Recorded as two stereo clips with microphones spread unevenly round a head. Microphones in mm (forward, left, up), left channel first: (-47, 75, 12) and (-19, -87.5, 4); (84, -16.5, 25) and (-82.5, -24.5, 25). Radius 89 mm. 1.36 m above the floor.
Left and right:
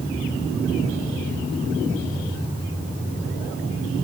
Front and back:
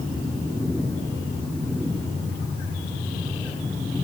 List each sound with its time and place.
Only background noise.